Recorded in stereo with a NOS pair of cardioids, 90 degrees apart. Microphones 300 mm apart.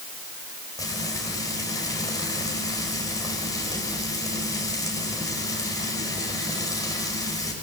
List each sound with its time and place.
0.8 s frying: 10° left, 5.5 m